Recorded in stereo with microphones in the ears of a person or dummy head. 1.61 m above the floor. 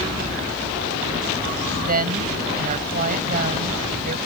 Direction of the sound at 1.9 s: 45° right (ahead or behind).